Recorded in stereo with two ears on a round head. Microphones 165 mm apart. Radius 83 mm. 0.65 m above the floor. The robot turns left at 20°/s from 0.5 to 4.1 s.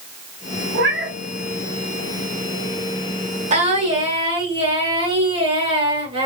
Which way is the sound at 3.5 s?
40° right (ahead or behind).